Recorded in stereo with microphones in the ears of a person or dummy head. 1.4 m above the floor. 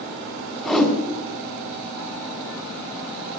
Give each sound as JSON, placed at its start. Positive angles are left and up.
{"t": 0.6, "sound": "a whoosh", "side_deg": 0, "distance_m": 3.0}